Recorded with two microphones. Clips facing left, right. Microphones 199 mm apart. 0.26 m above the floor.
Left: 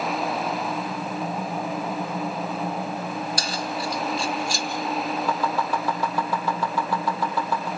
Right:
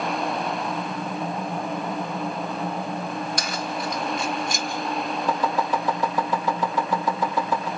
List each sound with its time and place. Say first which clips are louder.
3.4 s keys jangling: even; 30° left (ahead or behind), 2 m
5.3 s chopping: right 1 dB; 15° right (ahead or behind), 7 m